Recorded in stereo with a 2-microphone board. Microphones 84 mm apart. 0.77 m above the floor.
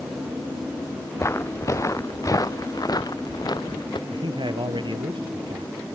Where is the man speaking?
65° right (ahead or behind).